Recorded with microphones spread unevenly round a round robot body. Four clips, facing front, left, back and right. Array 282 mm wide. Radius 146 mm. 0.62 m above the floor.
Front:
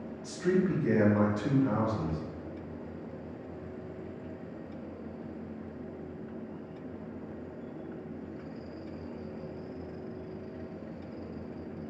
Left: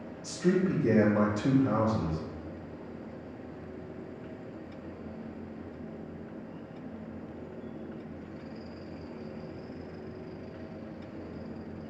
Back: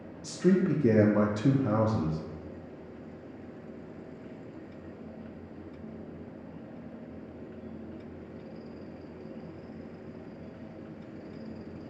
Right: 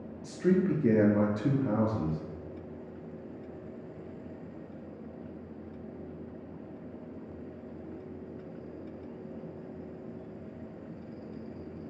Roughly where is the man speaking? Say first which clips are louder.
Right 1 dB, back 3 dB; behind.